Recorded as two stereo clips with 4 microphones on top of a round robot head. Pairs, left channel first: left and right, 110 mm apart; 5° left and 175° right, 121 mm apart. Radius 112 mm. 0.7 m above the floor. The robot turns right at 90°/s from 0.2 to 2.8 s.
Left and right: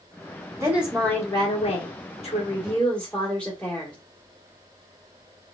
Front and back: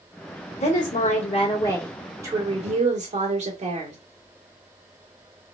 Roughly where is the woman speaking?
Ahead right.